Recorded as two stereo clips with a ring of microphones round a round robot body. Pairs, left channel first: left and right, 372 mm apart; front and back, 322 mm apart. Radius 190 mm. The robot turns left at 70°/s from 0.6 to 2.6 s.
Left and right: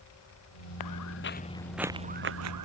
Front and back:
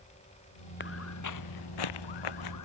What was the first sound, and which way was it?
Footsteps, 55° left.